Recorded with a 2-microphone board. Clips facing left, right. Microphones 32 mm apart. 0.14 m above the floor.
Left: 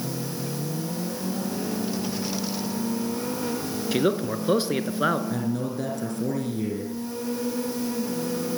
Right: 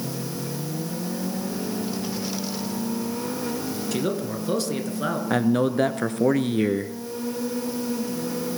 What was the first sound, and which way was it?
A man speaking, 25° left (ahead or behind).